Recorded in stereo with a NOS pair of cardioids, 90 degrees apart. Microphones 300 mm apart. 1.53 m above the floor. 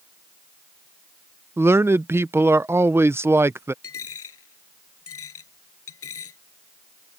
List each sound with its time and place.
1.6 s a man speaking: 10° right
3.8 s a dropped coin: 50° left